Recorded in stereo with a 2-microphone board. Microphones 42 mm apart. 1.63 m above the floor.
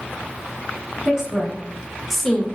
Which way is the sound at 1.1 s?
15° right (ahead or behind).